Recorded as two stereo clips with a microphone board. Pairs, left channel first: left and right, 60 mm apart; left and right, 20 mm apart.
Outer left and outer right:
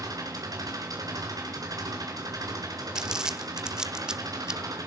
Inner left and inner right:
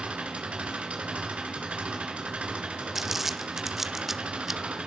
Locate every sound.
0.0 s an engine running: 80° right, 4 m
3.0 s crumpling: 10° right (ahead or behind), 1.2 m